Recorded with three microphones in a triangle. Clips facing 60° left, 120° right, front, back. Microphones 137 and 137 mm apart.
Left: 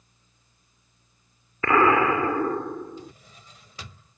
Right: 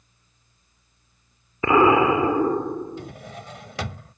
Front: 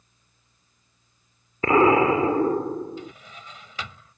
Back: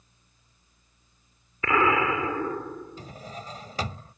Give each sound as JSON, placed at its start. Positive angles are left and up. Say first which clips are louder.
{"t": 1.6, "sound": "an explosion", "louder": "right 3 dB, front 6 dB", "azimuth_deg": -50}
{"t": 3.0, "sound": "a drawer", "louder": "right 7 dB, even", "azimuth_deg": -130}